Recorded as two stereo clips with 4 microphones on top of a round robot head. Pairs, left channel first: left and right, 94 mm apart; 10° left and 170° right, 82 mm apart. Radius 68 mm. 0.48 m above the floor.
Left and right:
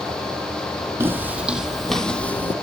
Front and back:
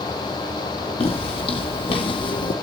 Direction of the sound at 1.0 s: 25° right.